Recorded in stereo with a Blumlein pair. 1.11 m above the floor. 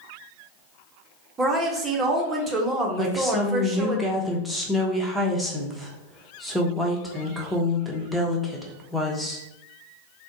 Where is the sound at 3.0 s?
Straight ahead, 0.7 m.